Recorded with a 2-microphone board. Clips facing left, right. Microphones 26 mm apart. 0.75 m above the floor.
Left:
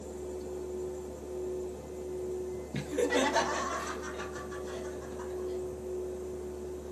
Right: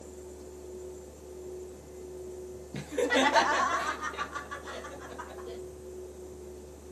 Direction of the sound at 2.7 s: 20° left (ahead or behind).